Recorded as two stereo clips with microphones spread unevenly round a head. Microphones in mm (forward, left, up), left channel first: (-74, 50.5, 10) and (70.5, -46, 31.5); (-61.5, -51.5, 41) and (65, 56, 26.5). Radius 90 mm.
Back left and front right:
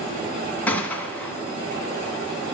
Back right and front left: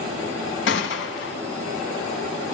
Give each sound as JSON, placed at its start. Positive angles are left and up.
{"t": 0.7, "sound": "a gunshot", "azimuth_deg": -130, "distance_m": 1.7}